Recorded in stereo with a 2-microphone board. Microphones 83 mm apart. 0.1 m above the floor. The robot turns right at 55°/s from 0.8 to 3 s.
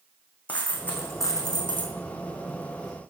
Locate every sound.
0.5 s a dropped coin: 20° left, 2.5 m; by 1.9 s 80° left, 2.5 m